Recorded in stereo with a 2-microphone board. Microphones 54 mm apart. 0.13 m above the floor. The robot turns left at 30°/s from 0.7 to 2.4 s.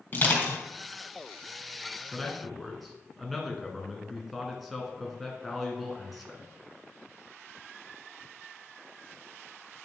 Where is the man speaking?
5° left (ahead or behind), 1.5 m; by 6.4 s centre (ahead or behind), 1.5 m.